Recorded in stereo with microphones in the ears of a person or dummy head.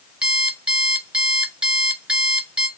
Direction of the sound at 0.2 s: 5° right (ahead or behind).